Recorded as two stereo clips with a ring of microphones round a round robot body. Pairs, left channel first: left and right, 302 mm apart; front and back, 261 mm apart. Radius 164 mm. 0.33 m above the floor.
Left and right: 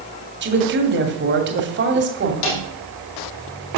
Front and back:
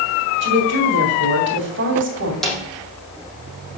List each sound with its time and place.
0.4 s a woman speaking: 140° right, 2.5 m
2.4 s a snare drum: 90° left, 5.5 m